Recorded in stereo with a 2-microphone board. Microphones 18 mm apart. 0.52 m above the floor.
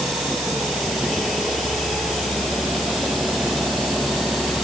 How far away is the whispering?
No whispering in this recording.